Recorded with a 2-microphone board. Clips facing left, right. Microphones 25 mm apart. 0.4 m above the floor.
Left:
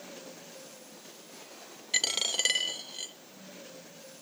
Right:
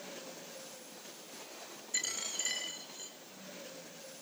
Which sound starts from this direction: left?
A dropped coin, at 1.9 s.